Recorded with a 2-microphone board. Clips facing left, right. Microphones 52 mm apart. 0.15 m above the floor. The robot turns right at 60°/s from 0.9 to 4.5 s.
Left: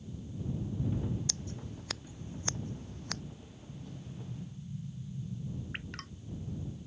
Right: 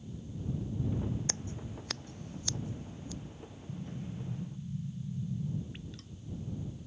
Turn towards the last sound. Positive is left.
turn(degrees=60)  # may be behind; listen again after turning